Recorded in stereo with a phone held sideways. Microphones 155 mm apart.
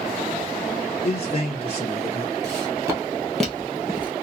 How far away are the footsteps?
About 1.6 m.